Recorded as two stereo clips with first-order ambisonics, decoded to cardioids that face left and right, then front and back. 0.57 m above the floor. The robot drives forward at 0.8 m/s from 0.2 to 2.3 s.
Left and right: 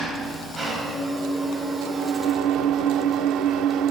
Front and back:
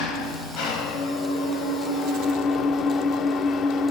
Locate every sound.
0.0 s an engine running: 10° right, 2 m; by 3.9 s 50° right, 0.5 m